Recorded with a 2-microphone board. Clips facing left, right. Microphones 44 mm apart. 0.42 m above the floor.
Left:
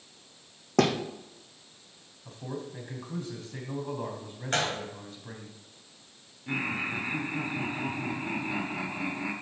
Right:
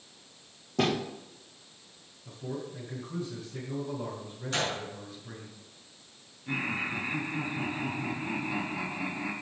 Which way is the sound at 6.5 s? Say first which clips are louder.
Left 1 dB; 10° left (ahead or behind).